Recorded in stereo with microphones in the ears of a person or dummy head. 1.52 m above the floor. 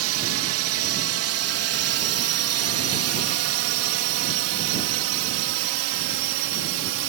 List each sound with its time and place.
0.0 s a drone: 70° right (ahead or behind); by 7.1 s 65° right (ahead or behind)